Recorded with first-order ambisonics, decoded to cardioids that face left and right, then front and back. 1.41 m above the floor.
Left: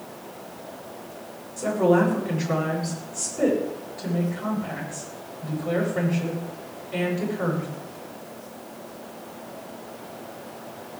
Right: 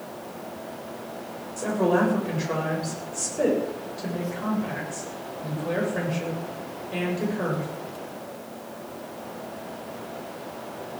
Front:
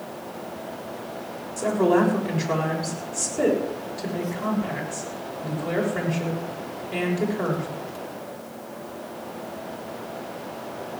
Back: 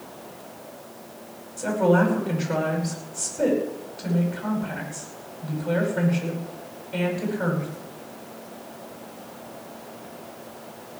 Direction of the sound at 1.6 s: 25° right.